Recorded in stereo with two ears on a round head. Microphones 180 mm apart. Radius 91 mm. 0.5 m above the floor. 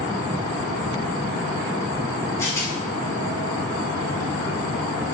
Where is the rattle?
15° left (ahead or behind), 4 m.